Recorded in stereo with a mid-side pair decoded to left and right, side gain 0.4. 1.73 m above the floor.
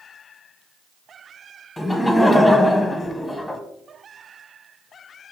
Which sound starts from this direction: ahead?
Laughter, at 1.8 s.